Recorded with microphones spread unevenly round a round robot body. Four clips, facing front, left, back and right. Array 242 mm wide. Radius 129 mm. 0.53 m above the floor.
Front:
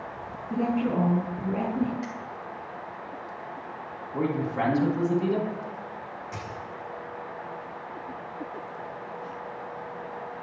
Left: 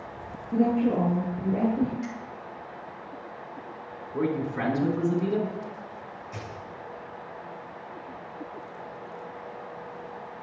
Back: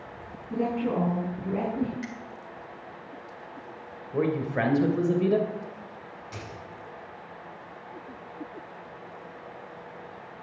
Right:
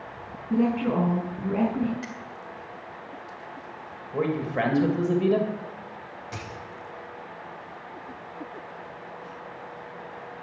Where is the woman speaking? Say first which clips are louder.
Even, front 1 dB; 85° right, 5 m.